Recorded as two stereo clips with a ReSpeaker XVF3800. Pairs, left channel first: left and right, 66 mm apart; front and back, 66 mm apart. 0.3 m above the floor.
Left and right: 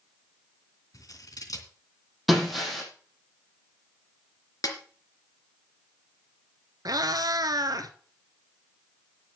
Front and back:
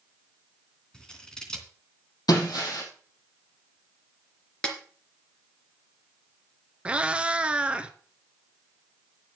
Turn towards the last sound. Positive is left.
turn(degrees=-105)